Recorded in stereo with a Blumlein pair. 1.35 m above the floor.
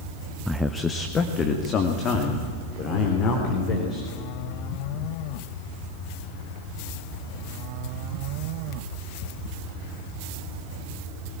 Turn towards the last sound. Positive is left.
turn(degrees=35)